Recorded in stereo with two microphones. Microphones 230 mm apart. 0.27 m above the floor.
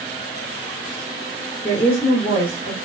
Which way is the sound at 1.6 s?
45° left (ahead or behind).